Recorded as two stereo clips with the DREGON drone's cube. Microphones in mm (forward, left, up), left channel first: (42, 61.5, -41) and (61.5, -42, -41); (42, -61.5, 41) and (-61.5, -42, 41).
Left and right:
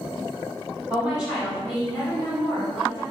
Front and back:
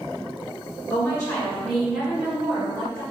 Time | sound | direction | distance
0.9 | a woman speaking | 15° right | 1.4 m